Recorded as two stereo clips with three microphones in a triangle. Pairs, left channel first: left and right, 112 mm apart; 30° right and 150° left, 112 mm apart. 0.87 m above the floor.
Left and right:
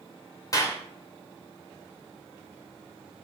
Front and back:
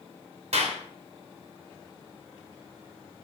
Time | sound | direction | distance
0.5 | a clap | 145° left | 2 m